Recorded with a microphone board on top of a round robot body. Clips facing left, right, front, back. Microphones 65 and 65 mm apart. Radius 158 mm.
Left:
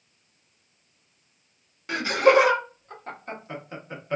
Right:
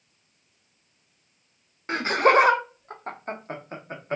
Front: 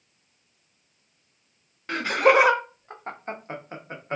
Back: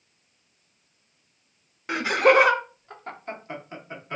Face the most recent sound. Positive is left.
turn(degrees=-45)